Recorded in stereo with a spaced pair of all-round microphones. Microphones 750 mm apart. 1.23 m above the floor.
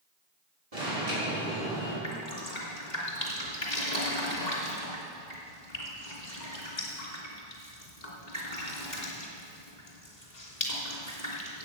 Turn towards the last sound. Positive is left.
turn(degrees=65)  # may be behind; listen again after turning